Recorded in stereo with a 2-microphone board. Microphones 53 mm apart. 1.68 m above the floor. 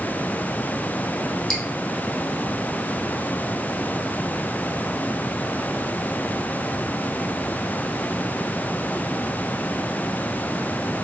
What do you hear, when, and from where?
1.5 s dripping: 5° left (ahead or behind), 1.1 m